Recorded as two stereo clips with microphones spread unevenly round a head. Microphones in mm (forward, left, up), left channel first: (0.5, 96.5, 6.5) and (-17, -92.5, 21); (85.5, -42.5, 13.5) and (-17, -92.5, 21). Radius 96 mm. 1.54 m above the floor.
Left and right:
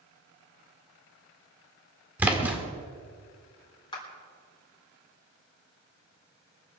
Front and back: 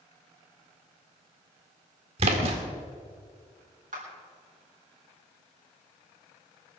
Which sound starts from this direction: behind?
A splash, at 2.2 s.